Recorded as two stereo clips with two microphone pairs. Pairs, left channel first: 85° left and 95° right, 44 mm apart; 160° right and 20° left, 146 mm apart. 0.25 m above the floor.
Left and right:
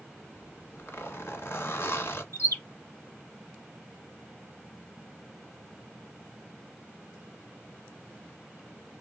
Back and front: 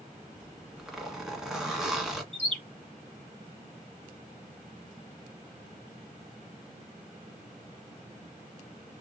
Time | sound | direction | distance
0.3 | a zipper | 110° left | 1.4 m
2.3 | a bird | 75° left | 2.5 m